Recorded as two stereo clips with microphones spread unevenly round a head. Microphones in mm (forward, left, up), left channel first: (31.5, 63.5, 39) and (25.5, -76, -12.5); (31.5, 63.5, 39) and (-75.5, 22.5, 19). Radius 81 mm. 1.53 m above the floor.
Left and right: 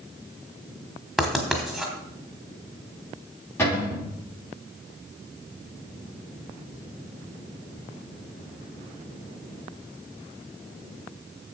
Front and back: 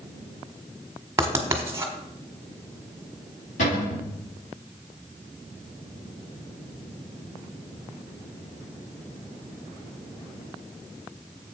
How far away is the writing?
About 1.3 m.